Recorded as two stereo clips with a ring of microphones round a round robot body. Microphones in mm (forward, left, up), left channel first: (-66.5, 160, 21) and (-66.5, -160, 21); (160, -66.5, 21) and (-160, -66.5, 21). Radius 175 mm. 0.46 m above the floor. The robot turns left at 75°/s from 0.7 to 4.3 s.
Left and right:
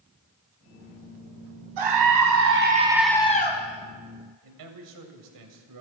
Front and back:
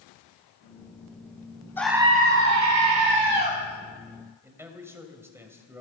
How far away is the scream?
About 3.5 m.